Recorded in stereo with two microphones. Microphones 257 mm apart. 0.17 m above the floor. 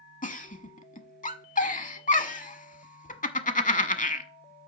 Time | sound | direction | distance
0.2 | a giggle | 30° left (ahead or behind) | 0.7 m